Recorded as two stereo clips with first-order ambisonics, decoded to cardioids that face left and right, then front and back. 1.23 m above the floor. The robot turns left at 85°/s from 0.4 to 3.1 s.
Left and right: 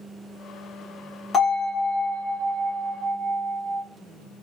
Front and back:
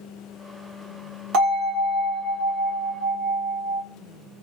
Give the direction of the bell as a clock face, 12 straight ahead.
7 o'clock.